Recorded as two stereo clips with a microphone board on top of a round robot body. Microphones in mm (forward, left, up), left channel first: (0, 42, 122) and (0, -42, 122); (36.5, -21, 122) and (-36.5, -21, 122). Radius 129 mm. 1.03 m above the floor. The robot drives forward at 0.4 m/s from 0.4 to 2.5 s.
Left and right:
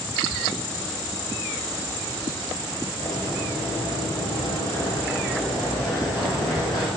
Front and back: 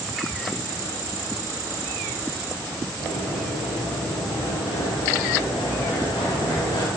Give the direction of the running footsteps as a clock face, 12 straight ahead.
11 o'clock.